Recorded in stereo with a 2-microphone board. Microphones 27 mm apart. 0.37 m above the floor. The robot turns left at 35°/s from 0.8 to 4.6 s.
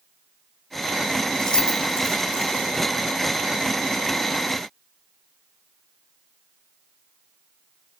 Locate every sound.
1.4 s keys jangling: 20° left (ahead or behind), 4 m; by 2.7 s 65° left (ahead or behind), 4 m